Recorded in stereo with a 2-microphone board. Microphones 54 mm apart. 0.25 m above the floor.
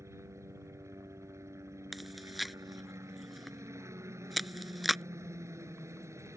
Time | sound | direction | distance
0.0 | a helicopter | 65° right (ahead or behind) | ?
1.9 | chewing | centre (ahead or behind) | ?